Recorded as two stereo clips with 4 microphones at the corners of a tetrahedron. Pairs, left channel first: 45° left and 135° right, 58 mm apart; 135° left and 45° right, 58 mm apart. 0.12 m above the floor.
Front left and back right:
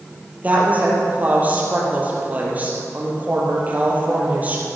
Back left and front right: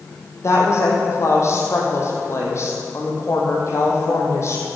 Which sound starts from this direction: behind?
A woman speaking, at 0.4 s.